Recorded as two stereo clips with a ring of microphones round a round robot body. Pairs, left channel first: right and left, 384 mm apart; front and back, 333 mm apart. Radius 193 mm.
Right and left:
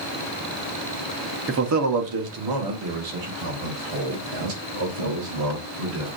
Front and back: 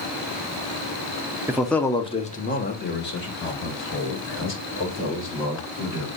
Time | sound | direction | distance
1.5 | a man speaking | 105° left | 0.7 m